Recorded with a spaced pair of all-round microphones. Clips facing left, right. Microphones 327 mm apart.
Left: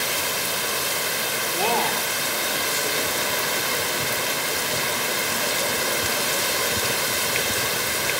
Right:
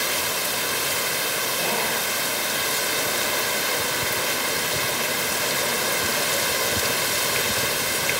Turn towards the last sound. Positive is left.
turn(degrees=80)